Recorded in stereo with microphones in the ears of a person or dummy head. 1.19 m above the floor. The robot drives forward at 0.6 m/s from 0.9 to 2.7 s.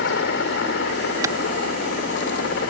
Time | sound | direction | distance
0.0 | a helicopter | 60° left (ahead or behind) | ?
1.2 | a clap | 20° right (ahead or behind) | ?